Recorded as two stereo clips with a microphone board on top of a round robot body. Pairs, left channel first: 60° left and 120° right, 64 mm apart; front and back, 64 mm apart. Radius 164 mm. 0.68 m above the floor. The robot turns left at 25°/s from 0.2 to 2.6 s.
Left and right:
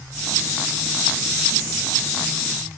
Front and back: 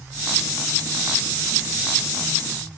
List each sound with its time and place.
Only background noise.